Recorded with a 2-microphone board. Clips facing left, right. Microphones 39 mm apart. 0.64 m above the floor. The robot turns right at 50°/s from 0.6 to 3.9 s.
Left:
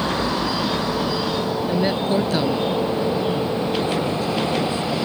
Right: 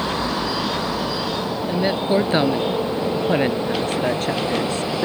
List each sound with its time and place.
1.7 s a woman speaking: straight behind; by 5.0 s 70° right